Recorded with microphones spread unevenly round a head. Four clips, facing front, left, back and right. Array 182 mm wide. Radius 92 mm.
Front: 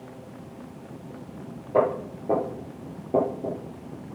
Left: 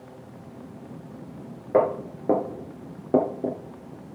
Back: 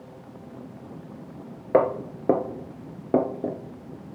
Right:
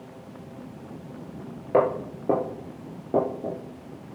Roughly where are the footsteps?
Behind.